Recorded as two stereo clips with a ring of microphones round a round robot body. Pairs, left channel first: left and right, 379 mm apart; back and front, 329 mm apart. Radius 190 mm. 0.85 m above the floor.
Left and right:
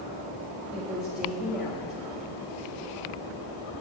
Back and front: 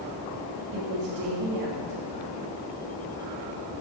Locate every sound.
0.7 s a woman speaking: straight ahead, 1.7 m